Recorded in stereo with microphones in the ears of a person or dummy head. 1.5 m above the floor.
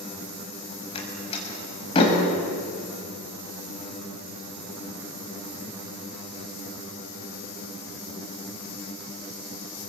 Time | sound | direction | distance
0.9 | a door slam | 25° left (ahead or behind) | 6 m